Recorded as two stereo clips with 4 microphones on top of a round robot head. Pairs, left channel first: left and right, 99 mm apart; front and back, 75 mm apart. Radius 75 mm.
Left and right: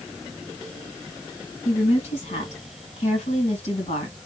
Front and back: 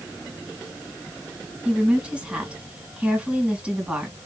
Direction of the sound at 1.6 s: 105° left.